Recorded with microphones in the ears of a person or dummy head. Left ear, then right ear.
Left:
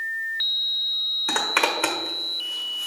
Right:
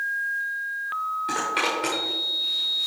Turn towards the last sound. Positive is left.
turn(degrees=35)  # may be behind; listen again after turning